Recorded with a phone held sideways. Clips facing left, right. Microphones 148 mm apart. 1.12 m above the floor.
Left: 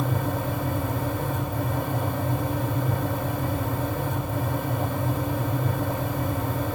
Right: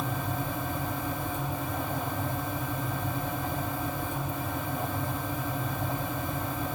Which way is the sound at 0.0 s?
65° left (ahead or behind).